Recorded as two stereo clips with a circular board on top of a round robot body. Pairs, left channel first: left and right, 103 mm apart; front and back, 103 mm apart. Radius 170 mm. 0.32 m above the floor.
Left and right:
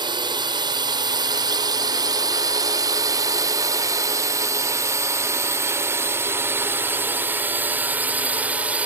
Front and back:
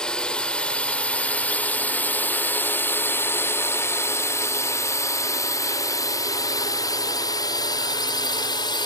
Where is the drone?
80° right; by 8.9 s 20° right.